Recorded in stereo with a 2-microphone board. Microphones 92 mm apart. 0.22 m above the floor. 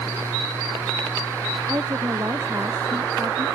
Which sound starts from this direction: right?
A woman speaking, at 1.7 s.